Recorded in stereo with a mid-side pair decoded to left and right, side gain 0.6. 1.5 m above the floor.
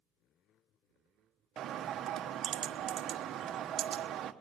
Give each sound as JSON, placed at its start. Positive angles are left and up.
{"t": 1.6, "sound": "a bird", "azimuth_deg": -50, "distance_m": 1.2}